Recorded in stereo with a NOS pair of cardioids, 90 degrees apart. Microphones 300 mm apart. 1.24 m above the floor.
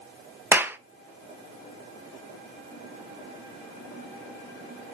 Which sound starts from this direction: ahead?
A clap, at 0.5 s.